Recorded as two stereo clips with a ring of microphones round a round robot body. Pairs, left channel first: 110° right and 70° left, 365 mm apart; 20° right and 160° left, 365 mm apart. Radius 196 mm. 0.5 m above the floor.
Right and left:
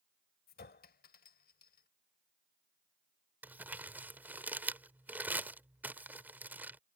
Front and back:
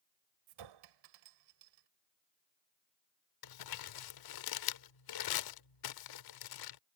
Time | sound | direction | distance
0.5 | a clink | straight behind | ?
3.4 | crumpling | 20° right | ?